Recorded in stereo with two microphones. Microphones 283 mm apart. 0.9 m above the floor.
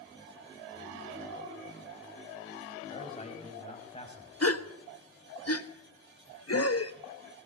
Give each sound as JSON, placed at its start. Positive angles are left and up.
{"t": 2.9, "sound": "a man speaking", "side_deg": 25, "distance_m": 7.0}
{"t": 4.4, "sound": "a gasp", "side_deg": 60, "distance_m": 1.3}